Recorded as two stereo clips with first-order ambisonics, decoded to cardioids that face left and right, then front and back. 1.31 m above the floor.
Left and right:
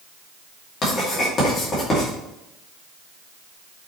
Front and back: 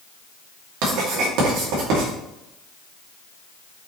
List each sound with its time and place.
0.8 s writing: 150° left, 2.5 m